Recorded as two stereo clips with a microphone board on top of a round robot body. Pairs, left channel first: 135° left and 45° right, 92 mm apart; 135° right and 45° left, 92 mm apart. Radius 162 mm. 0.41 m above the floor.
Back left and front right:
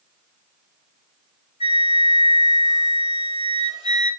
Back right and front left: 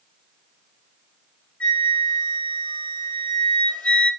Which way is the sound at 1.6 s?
150° left.